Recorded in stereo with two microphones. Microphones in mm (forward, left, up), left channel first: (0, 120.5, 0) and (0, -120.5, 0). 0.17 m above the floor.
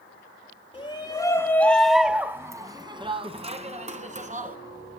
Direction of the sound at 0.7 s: 20° left (ahead or behind).